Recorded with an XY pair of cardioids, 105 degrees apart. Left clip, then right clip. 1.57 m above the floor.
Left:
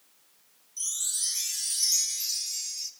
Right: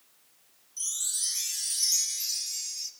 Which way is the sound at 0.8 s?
5° left.